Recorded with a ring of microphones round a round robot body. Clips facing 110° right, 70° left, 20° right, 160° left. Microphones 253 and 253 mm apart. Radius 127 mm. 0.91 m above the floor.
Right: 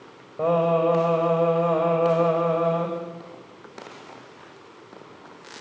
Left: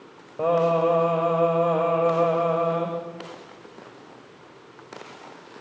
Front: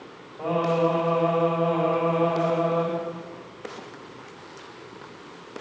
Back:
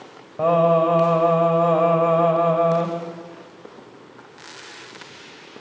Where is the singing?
155° left, 7.5 m.